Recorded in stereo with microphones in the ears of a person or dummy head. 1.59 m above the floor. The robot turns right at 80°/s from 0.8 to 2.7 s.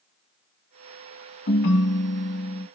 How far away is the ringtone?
About 0.9 m.